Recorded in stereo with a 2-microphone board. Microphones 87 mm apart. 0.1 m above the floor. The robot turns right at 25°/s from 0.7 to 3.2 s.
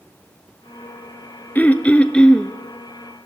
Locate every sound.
1.6 s throat clearing: 20° left (ahead or behind), 1.0 m; by 2.5 s 5° left (ahead or behind), 1.0 m